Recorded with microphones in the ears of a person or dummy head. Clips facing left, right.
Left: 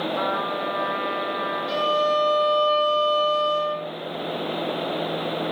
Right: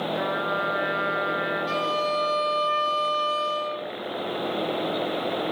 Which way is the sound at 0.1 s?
5° right (ahead or behind).